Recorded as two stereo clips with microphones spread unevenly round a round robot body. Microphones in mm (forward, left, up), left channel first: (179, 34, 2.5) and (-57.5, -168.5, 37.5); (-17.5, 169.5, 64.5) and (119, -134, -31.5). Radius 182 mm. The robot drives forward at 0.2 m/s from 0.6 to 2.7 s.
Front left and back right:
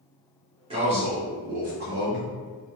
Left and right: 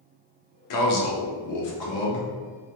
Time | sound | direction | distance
0.7 | a man speaking | 145° left | 0.5 m